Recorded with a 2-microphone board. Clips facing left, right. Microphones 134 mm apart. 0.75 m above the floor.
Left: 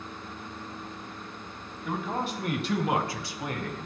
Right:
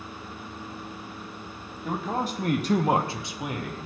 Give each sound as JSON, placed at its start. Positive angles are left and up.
{"t": 1.9, "sound": "a man speaking", "side_deg": -35, "distance_m": 1.1}